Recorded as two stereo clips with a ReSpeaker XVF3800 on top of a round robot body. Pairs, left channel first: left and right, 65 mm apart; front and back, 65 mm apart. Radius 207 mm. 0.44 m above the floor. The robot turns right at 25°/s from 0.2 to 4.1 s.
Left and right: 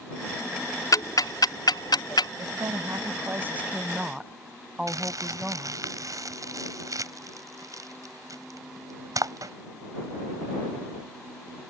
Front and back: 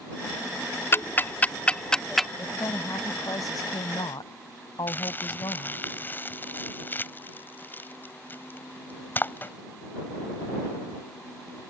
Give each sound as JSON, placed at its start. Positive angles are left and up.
{"t": 0.9, "sound": "ticking", "azimuth_deg": 55}
{"t": 2.4, "sound": "a woman speaking", "azimuth_deg": -55}
{"t": 4.9, "sound": "crumpling", "azimuth_deg": -60}